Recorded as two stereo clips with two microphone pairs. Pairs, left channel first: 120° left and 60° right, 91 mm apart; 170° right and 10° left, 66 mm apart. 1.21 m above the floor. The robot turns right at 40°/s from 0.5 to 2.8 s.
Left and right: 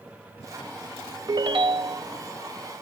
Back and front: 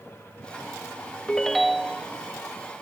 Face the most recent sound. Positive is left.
turn(degrees=-30)